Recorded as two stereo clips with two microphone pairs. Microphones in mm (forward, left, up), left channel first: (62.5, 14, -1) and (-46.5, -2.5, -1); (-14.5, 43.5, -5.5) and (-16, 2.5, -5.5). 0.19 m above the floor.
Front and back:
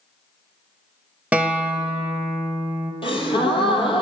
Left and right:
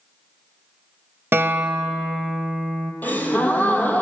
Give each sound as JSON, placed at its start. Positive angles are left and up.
{"t": 1.3, "sound": "a guitar", "azimuth_deg": -90, "distance_m": 0.5}
{"t": 3.0, "sound": "a gasp", "azimuth_deg": 45, "distance_m": 0.8}